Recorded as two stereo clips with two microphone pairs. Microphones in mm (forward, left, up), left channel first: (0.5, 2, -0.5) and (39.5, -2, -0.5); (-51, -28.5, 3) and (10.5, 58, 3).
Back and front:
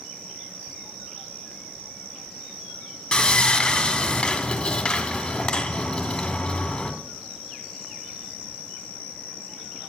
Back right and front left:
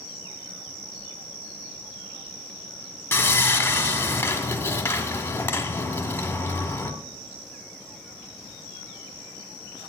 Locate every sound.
3.1 s sawing: 150° right, 1.3 m